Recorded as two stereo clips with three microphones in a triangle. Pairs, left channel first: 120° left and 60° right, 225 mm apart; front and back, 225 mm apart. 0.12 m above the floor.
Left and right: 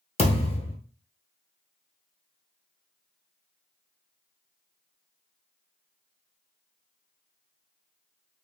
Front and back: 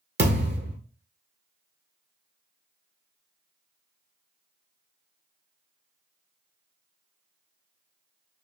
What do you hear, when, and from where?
0.2 s a thud: 175° left, 1.0 m